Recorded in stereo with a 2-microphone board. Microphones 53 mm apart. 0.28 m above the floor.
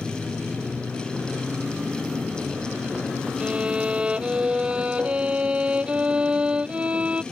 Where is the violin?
20° right (ahead or behind).